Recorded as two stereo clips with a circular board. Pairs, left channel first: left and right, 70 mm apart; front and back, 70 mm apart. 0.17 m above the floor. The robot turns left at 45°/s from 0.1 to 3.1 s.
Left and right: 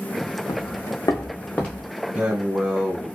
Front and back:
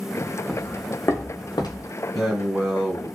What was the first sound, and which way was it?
Footsteps, 100° left.